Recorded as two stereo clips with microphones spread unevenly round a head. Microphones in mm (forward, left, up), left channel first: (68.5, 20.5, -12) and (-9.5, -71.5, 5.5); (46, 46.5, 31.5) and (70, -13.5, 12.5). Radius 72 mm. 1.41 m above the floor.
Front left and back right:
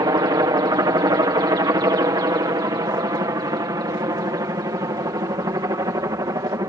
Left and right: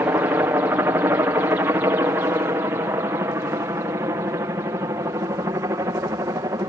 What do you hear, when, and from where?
0.0 s a helicopter: 90° right; by 6.7 s 75° right